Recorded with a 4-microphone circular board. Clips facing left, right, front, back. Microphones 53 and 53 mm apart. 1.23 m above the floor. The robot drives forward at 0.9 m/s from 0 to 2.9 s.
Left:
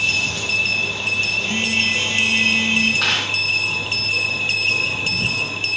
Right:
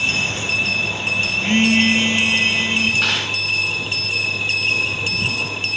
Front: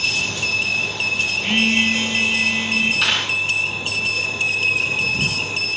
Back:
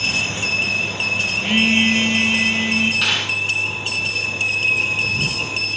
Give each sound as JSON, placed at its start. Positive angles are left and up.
{"t": 1.4, "sound": "a phone buzzing", "azimuth_deg": -85, "distance_m": 0.5}
{"t": 3.0, "sound": "a dropped coin", "azimuth_deg": 100, "distance_m": 4.5}